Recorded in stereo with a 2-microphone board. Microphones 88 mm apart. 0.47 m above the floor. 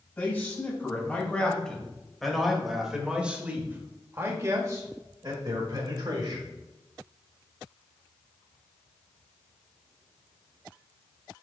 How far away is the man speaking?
About 2.5 m.